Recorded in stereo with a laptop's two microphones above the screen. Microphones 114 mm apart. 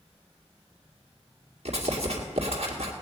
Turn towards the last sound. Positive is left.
turn(degrees=-65)  # may be behind; listen again after turning